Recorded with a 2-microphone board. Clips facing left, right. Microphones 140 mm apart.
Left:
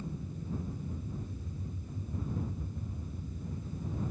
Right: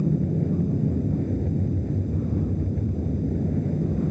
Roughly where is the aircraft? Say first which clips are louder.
Right 18 dB; right.